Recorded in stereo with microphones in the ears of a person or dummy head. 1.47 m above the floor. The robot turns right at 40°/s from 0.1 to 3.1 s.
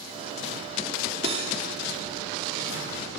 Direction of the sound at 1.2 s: 30° right (ahead or behind).